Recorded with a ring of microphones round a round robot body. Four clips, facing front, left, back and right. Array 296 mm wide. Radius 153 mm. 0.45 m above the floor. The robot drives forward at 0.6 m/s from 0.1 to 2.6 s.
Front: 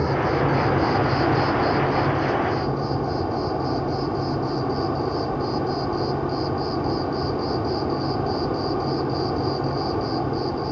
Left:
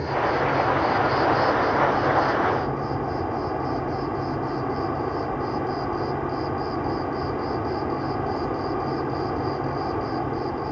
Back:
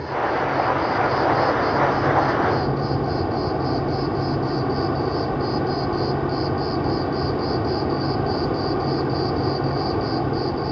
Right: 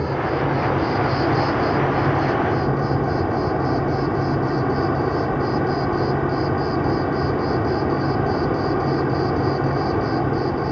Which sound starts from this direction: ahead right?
An insect, at 0.0 s.